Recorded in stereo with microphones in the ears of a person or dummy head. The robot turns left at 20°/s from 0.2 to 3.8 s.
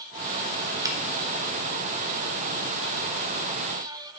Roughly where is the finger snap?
Right.